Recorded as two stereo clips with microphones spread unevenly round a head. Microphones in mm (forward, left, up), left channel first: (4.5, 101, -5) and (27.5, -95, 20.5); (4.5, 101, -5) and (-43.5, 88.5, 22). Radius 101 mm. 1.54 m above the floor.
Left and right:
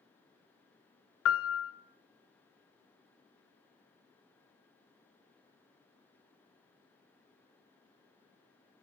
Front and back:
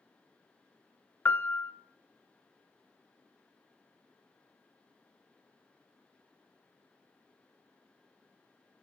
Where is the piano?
70° left, 0.5 m.